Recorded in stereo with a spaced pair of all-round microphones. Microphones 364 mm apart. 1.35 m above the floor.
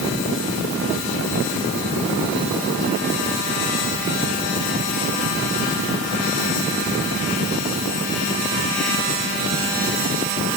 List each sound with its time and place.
Only background noise.